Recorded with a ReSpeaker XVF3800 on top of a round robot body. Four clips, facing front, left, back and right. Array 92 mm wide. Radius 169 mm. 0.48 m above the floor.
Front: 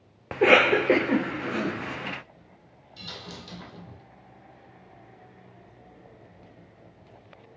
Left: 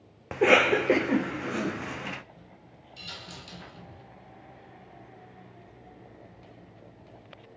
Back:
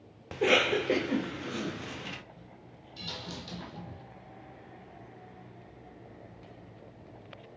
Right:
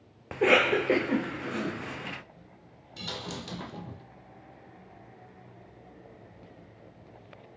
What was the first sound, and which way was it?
A cough, 20° left.